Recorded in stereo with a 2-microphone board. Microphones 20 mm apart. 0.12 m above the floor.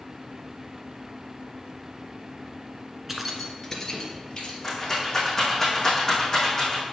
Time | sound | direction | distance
3.1 | keys jangling | 10° right (ahead or behind) | 1.1 m
4.6 | a rattle | 20° left (ahead or behind) | 4 m